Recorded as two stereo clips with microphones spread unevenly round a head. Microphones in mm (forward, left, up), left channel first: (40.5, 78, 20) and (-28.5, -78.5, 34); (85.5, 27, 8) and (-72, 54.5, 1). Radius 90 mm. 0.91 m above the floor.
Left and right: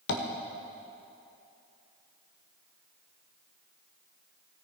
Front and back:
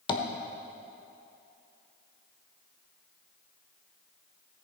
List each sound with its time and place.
0.1 s tapping: 45° left, 1.0 m